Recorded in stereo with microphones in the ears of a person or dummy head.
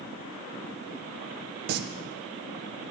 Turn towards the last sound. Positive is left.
turn(degrees=-60)  # may be behind; listen again after turning